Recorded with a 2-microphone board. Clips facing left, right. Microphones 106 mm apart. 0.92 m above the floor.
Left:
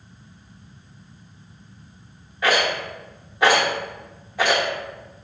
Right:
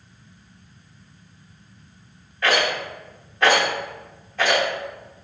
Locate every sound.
2.4 s a rattle: 15° left (ahead or behind), 1.1 m